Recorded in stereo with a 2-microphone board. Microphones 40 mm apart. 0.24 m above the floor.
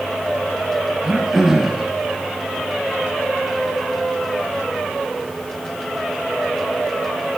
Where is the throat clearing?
15° right (ahead or behind), 1.7 m.